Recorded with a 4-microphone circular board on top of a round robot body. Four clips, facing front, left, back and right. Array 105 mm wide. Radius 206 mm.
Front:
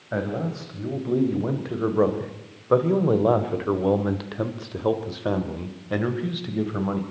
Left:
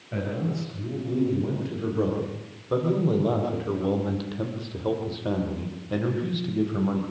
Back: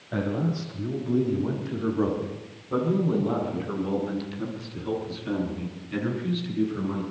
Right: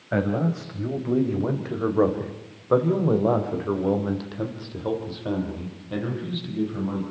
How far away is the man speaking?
About 4 m.